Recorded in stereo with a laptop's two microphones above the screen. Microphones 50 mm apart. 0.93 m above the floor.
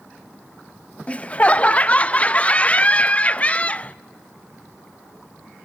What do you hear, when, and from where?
1.1 s laughter: 30° left (ahead or behind), 0.6 m